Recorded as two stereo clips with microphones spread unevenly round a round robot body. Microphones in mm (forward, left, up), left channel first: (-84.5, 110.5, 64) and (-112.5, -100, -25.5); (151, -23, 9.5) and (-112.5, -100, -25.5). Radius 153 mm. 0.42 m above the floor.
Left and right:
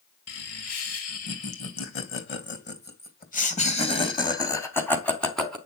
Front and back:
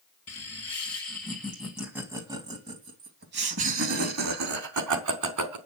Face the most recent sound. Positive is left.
turn(degrees=180)